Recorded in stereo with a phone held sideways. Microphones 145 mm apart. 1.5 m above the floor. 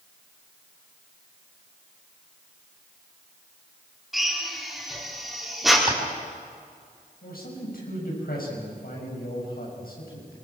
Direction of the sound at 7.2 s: 80° left.